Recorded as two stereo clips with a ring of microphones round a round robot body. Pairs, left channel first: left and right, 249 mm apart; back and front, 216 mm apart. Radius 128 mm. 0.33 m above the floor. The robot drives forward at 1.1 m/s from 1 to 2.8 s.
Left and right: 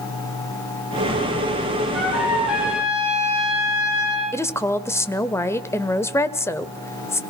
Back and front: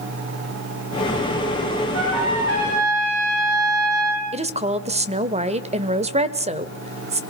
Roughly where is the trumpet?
Ahead.